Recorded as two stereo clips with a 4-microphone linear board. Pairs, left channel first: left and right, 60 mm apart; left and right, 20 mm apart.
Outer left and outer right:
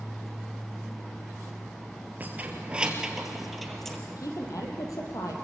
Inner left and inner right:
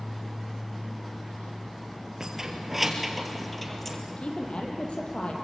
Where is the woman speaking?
70° left (ahead or behind), 4.5 m.